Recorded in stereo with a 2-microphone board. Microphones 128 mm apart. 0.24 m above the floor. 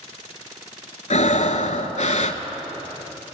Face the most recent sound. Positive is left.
turn(degrees=70)  # may be behind; listen again after turning